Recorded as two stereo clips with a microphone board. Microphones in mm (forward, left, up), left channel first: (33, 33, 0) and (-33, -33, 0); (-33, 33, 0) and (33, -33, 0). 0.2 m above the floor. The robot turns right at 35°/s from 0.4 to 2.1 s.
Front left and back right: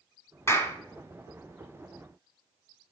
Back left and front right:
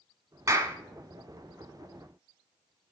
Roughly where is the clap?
Ahead.